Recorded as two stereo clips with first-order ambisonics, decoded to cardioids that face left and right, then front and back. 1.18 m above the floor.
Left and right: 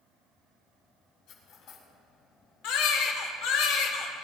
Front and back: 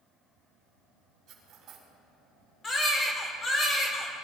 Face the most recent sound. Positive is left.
turn(degrees=70)